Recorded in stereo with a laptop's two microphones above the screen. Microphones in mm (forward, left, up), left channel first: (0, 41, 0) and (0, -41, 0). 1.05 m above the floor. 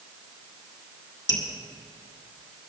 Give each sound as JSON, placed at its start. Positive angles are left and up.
{"t": 1.3, "sound": "dripping", "side_deg": 70, "distance_m": 2.5}